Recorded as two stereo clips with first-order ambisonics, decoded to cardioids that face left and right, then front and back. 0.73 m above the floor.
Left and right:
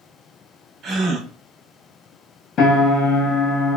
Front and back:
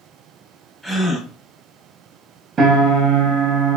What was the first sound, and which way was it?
A gasp, 85° right.